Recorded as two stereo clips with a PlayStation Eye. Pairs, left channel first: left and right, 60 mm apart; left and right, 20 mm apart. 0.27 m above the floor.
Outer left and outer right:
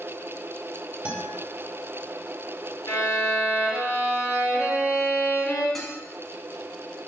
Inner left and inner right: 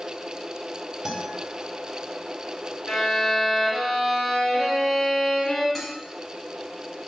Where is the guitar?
20° right (ahead or behind), 1.3 m.